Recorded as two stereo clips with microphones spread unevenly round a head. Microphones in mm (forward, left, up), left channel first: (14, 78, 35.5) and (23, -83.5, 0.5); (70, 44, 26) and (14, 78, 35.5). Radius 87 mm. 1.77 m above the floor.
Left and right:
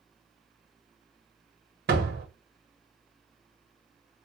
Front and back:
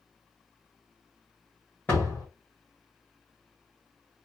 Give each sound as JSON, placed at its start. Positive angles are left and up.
{"t": 1.9, "sound": "a door slam", "azimuth_deg": -115, "distance_m": 1.3}